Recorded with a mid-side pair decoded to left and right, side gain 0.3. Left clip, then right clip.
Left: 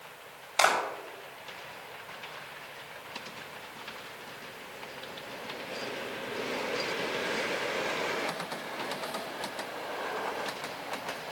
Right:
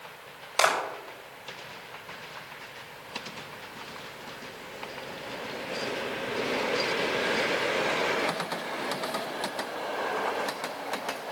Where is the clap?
65° right, 4.5 m.